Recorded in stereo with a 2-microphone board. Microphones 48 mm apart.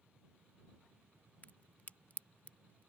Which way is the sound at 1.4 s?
35° left (ahead or behind).